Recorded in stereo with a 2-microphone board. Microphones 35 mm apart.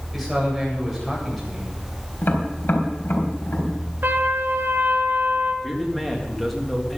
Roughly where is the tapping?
Left.